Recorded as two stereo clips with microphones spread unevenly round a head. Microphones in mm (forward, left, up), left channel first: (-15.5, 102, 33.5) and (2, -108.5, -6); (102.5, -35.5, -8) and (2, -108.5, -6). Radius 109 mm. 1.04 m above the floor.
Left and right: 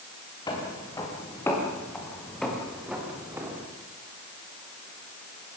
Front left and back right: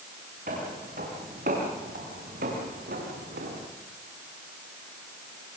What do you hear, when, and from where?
0.5 s footsteps: 165° left, 7.5 m; by 3.6 s 165° right, 5.5 m